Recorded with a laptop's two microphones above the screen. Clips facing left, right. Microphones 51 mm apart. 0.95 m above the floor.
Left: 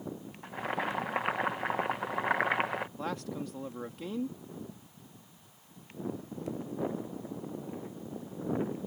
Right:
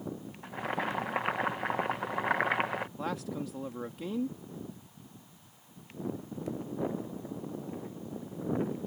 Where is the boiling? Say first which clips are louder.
Even; centre (ahead or behind).